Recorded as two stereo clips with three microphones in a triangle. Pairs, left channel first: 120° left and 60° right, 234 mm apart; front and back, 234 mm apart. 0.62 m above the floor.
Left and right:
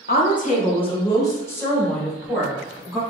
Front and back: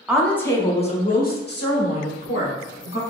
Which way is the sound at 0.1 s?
95° left.